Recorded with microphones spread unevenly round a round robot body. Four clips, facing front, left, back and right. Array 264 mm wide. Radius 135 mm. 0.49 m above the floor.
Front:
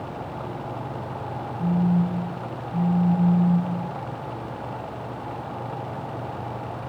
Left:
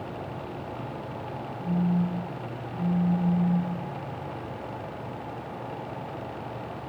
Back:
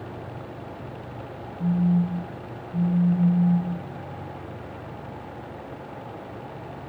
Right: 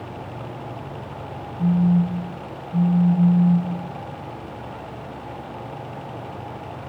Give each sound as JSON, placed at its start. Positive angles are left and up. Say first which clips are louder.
{"t": 1.6, "sound": "a phone buzzing", "louder": "right 8 dB, even", "azimuth_deg": -60, "distance_m": 5.0}